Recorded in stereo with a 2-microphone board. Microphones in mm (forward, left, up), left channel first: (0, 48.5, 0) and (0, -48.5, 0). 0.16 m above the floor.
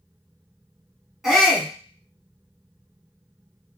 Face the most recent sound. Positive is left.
turn(degrees=-5)  # may be behind; listen again after turning